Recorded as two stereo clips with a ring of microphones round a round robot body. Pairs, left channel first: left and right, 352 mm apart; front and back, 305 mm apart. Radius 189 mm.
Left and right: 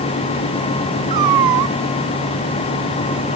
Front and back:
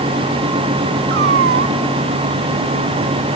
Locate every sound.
1.1 s a cat meowing: 120° right